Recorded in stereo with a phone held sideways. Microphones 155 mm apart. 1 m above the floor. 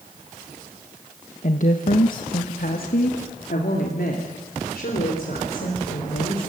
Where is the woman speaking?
55° left (ahead or behind), 1.2 m; by 6.4 s 80° left, 5 m.